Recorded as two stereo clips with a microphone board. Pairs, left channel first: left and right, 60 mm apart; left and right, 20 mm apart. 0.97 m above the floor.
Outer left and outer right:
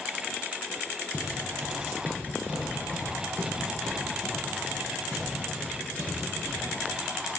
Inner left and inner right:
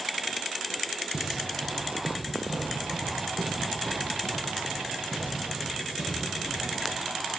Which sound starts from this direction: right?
Footsteps, at 1.1 s.